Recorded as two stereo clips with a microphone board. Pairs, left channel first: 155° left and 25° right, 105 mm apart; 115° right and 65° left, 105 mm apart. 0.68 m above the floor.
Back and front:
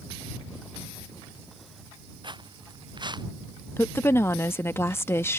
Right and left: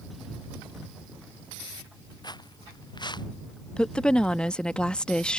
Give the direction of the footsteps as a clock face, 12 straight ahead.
2 o'clock.